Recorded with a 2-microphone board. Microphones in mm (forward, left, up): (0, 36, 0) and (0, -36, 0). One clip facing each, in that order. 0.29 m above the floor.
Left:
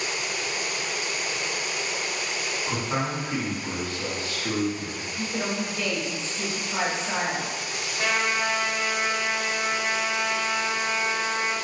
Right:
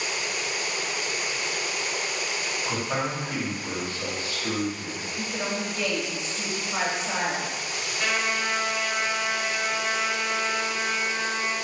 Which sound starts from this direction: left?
A trumpet, at 8.0 s.